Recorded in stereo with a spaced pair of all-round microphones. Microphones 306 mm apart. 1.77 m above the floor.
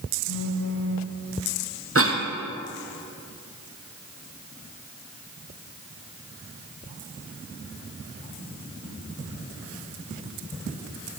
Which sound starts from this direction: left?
A phone buzzing, at 0.3 s.